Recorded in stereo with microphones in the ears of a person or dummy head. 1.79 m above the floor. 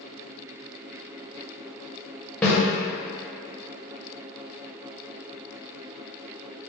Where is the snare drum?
5° left (ahead or behind), 1.4 m.